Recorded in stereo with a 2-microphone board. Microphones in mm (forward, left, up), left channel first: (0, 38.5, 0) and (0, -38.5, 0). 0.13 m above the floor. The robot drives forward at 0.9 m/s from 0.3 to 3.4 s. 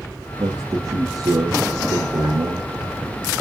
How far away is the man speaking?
About 5 m.